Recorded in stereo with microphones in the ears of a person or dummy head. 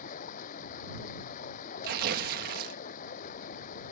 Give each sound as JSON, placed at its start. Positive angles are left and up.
{"t": 0.0, "sound": "running water", "side_deg": 40}
{"t": 1.8, "sound": "tearing paper", "side_deg": -50}